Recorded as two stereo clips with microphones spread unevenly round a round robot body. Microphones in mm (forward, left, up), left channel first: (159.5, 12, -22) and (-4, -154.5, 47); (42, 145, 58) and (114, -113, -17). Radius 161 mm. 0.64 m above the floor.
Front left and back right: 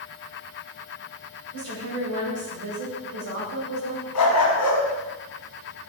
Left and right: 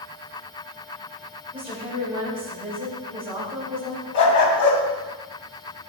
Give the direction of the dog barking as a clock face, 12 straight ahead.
9 o'clock.